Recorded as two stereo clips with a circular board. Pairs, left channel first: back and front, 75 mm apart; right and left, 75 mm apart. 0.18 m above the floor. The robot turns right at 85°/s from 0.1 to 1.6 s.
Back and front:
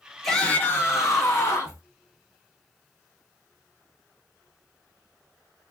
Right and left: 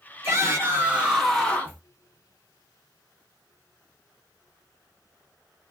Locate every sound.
0.2 s a shout: 95° left, 1.4 m; by 1.8 s 150° right, 1.4 m